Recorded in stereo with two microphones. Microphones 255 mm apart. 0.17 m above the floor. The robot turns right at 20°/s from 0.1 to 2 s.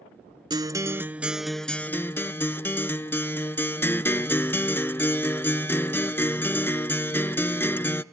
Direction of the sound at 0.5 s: 20° right.